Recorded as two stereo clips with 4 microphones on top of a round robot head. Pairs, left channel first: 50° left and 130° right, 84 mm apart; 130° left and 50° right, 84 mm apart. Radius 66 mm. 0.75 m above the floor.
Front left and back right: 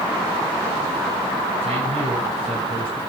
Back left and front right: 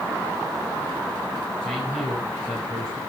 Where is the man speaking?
145° right, 9 m.